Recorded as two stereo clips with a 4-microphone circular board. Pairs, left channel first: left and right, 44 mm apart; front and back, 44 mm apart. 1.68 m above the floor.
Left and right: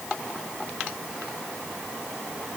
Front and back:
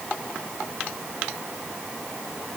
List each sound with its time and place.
Only background noise.